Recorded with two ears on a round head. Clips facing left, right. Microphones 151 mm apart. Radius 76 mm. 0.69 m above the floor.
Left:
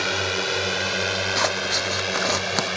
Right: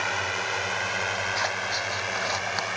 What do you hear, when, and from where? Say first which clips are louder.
0.0 s a drone: left 5 dB; 50° left (ahead or behind); by 2.8 s 45° left (ahead or behind)
1.4 s scissors: left 5 dB; 65° left (ahead or behind)